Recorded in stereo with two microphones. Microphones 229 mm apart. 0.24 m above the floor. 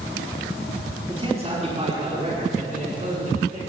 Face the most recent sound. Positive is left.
turn(degrees=-40)  # may be behind; listen again after turning